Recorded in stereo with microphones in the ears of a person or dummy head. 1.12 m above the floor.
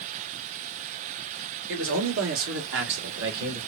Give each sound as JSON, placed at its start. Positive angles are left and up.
{"t": 1.7, "sound": "a man speaking", "side_deg": -70, "distance_m": 1.9}